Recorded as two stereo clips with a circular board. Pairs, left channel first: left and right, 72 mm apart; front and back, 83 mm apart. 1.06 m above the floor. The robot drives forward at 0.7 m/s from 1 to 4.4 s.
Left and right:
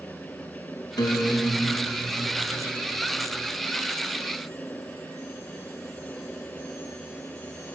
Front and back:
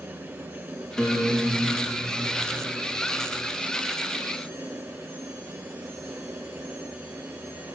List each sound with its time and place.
1.0 s a guitar: 80° left, 1.1 m; by 3.2 s 145° left, 1.8 m